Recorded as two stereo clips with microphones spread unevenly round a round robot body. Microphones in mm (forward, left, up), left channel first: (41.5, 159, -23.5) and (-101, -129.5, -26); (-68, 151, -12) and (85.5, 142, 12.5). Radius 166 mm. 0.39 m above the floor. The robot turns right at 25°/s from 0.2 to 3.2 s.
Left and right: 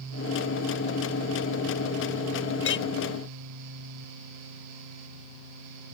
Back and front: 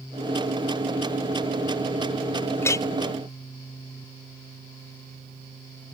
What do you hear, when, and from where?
2.6 s a clink: 110° left; by 2.9 s 115° left